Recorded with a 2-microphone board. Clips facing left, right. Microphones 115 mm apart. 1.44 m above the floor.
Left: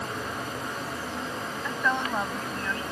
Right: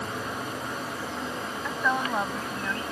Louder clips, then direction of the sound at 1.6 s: Right 1 dB; 10° right (ahead or behind).